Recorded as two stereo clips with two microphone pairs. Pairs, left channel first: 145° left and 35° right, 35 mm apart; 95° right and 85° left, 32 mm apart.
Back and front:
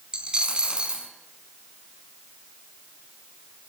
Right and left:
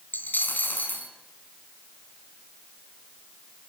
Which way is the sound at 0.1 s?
100° right.